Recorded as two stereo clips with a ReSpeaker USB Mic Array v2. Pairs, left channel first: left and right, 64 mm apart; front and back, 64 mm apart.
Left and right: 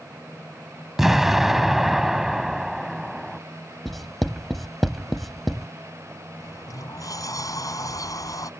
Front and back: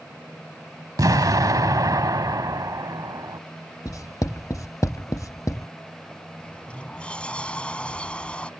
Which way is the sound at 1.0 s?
175° right.